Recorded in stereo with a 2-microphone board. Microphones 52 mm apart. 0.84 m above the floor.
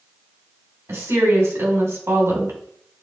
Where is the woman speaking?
65° right (ahead or behind), 3 m.